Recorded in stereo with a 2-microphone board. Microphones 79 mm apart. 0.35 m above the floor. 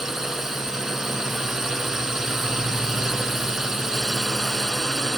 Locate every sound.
0.0 s a drone: 5° right (ahead or behind)